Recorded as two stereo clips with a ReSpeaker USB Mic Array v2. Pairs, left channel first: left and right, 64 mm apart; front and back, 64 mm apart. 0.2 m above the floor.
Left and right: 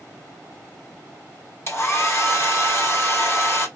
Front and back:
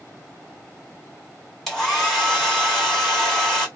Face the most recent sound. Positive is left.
turn(degrees=90)